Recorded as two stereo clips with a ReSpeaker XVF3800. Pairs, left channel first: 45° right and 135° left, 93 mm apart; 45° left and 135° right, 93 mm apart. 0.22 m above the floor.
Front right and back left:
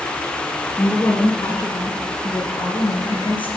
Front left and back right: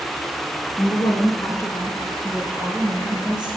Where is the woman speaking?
15° left, 3.5 m; by 3.5 s 55° right, 4.5 m.